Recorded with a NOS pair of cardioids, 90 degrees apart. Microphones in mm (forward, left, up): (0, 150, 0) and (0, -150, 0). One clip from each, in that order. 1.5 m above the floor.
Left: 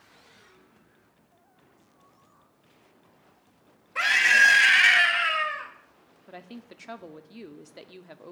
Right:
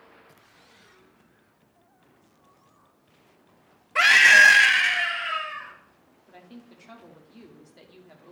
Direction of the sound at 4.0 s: 45° right.